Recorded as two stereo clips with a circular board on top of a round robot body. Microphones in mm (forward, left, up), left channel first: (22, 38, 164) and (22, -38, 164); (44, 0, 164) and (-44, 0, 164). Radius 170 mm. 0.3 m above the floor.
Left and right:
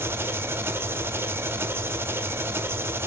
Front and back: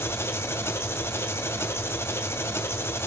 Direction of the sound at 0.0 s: 50° right.